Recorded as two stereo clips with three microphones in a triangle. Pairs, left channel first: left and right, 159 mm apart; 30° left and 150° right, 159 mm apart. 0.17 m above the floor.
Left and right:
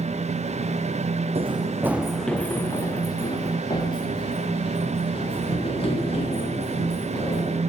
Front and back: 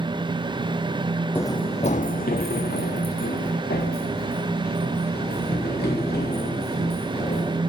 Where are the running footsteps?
45° right, 0.6 m; by 7.6 s 40° left, 4.5 m.